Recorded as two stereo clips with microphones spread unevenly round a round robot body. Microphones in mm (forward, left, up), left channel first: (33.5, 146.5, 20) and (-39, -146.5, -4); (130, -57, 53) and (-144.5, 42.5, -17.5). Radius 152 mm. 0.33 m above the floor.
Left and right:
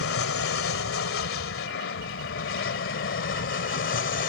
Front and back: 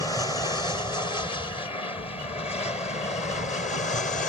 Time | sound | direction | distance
0.0 | an aircraft | 70° left | ?